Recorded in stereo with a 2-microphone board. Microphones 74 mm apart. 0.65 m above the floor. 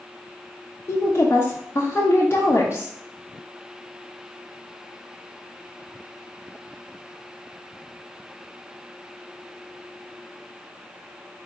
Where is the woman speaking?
35° left (ahead or behind), 0.7 m.